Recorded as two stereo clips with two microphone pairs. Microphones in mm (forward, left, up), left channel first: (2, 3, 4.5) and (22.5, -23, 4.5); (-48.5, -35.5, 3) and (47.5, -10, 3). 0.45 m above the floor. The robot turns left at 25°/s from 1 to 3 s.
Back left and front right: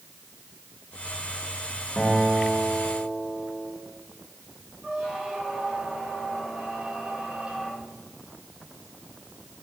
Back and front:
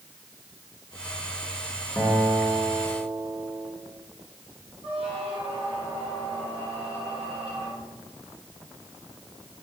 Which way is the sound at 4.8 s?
5° left.